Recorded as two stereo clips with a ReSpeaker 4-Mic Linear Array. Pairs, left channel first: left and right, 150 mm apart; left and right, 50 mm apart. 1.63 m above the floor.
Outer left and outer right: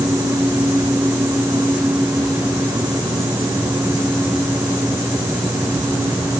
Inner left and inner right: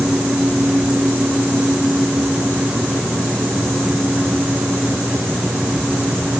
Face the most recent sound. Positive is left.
No sound to turn to.